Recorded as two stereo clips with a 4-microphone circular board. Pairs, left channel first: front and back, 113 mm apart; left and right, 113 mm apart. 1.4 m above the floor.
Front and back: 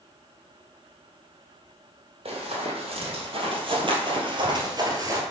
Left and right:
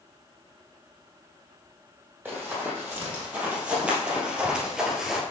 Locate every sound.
2.2 s running footsteps: 165° right, 3 m; by 5.2 s 175° right, 1.5 m